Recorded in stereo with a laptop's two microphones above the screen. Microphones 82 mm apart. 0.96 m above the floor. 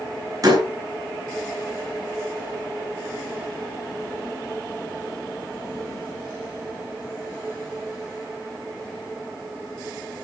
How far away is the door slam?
About 7.5 m.